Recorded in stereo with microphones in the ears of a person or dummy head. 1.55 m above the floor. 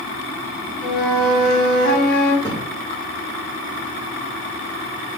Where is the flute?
60° left (ahead or behind), 3.5 m.